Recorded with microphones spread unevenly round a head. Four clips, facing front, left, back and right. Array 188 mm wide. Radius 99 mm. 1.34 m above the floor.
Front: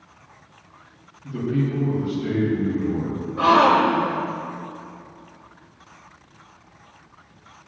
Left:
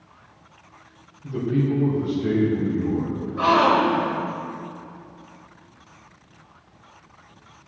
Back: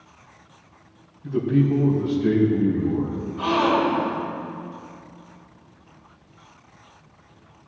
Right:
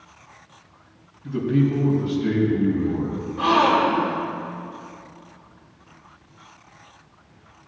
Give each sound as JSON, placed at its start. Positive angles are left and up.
{"t": 1.2, "sound": "a man speaking", "azimuth_deg": 135, "distance_m": 5.0}
{"t": 3.4, "sound": "a gasp", "azimuth_deg": 35, "distance_m": 2.5}